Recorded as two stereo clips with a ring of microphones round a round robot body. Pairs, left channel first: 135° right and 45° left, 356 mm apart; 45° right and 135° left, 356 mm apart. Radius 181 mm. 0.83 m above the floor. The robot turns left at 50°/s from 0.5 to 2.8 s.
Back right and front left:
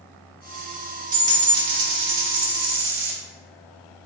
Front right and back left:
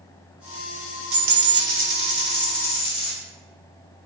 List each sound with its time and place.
1.1 s a dropped coin: 115° left, 1.2 m; by 3.1 s 30° left, 1.2 m